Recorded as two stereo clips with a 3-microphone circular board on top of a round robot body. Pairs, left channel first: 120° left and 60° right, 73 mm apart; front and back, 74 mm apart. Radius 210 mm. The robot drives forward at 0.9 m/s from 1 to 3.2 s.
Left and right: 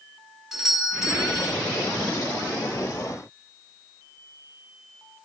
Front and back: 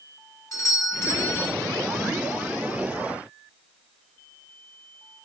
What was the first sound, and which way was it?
A doorbell, 20° left.